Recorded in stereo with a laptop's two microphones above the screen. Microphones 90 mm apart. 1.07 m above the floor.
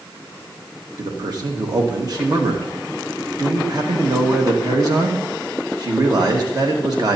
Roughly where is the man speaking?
Right.